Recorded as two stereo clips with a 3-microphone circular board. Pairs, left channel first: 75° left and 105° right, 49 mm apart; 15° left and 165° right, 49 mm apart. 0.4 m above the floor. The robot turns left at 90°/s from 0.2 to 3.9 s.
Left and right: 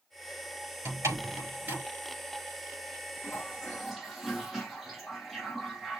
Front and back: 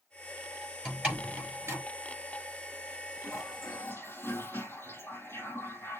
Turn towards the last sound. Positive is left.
turn(degrees=-15)